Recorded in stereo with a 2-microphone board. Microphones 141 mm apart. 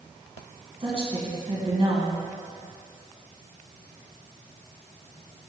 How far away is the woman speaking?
About 2 m.